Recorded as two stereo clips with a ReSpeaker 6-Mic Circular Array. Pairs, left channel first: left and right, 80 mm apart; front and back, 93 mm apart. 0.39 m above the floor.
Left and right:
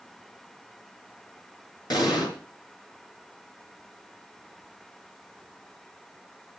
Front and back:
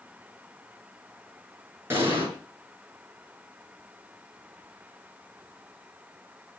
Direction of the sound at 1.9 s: 115° left.